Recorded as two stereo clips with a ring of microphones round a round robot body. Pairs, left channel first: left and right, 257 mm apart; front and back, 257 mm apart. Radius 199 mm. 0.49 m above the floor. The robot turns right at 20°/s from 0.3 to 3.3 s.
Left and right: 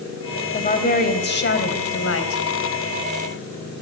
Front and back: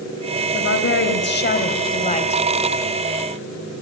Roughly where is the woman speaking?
Ahead left.